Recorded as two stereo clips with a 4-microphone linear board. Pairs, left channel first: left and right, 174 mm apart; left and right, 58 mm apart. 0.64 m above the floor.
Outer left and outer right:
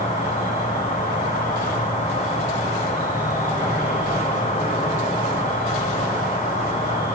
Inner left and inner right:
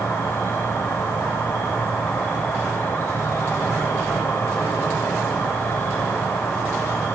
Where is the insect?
45° left (ahead or behind), 2.0 m.